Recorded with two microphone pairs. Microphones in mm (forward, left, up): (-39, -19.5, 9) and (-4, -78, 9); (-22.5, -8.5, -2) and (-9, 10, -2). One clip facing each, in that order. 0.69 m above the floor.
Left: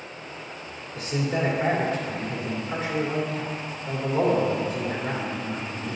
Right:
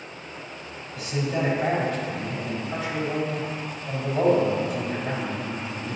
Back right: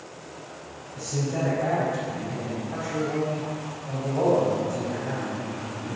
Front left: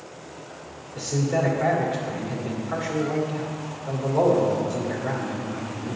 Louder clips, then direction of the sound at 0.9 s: Even, front left 4 dB; 75° left.